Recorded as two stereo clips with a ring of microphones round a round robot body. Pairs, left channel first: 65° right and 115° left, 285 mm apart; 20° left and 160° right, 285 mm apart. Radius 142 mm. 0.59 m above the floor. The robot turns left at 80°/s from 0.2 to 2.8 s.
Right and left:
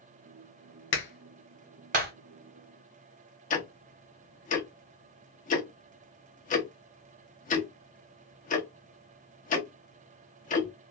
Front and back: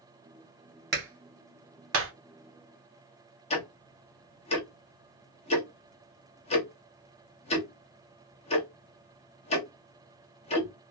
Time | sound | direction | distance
0.9 | a clap | 105° right | 1.1 m
3.5 | ticking | 30° right | 0.7 m